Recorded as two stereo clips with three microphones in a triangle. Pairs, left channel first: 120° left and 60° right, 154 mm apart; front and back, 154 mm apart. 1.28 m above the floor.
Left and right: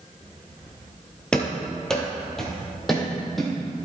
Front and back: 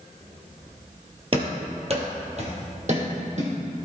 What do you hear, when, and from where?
1.3 s running footsteps: 160° right, 1.7 m; by 3.5 s 150° right, 3 m